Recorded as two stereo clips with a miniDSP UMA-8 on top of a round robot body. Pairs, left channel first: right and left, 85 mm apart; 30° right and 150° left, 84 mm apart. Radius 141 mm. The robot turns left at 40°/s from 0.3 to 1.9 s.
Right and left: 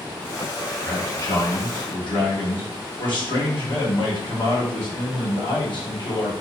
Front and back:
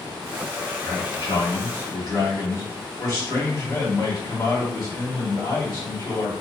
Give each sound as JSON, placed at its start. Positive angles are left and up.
{"t": 0.8, "sound": "a man speaking", "azimuth_deg": -35, "distance_m": 1.5}